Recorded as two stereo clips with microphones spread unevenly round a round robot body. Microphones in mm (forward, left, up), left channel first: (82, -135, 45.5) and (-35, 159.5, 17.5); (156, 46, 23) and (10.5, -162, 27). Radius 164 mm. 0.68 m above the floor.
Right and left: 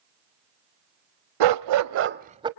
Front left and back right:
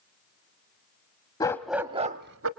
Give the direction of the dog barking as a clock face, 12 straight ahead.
8 o'clock.